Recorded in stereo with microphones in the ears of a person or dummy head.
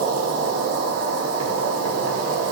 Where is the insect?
70° right (ahead or behind), 1.5 m.